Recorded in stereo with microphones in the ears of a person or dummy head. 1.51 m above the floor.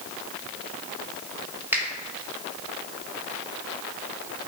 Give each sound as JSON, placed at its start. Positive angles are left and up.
{"t": 1.7, "sound": "a finger snap", "side_deg": -10, "distance_m": 1.4}